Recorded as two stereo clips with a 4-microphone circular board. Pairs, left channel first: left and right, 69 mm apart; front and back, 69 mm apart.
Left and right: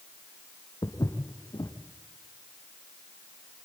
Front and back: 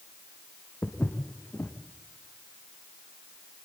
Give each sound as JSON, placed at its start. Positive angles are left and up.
{"t": 0.8, "sound": "footsteps", "azimuth_deg": 65, "distance_m": 2.0}